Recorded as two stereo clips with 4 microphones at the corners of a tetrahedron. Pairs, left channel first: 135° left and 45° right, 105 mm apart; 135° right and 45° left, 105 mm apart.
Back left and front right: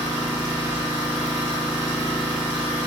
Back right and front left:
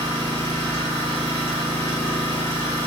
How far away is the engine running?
About 2.0 m.